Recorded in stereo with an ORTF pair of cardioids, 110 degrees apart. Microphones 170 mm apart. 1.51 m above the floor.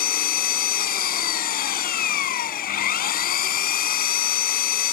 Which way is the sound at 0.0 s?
60° left.